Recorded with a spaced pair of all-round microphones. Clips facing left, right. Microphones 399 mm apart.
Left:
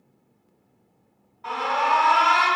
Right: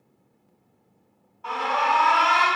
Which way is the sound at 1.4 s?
35° left (ahead or behind).